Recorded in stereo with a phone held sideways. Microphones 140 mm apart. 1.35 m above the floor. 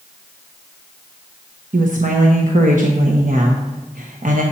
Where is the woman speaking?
75° right (ahead or behind), 1.0 m.